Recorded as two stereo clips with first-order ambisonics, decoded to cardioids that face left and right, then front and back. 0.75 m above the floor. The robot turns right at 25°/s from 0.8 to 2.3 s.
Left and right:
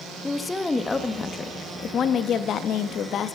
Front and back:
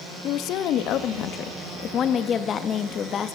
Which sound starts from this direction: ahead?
A woman speaking, at 0.2 s.